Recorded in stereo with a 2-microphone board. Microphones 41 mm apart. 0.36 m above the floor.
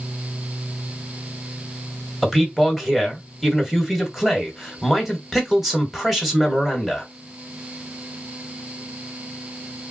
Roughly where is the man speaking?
Centre.